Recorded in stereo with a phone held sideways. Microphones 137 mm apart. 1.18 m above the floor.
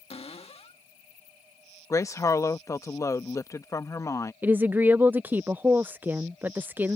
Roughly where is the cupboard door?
Left.